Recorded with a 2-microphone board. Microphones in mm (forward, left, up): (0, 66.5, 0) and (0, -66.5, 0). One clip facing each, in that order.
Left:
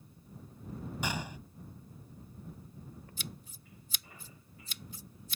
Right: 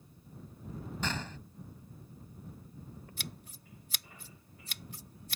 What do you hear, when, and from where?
1.0 s a gunshot: 10° left (ahead or behind)
3.2 s scissors: 65° right (ahead or behind)